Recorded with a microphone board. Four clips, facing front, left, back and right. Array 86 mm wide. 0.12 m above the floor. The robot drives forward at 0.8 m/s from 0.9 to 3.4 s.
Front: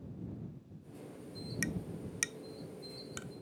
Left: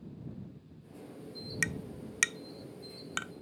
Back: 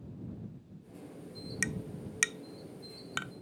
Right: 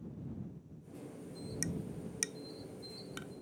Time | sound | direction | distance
1.6 | tapping | 105° left | ?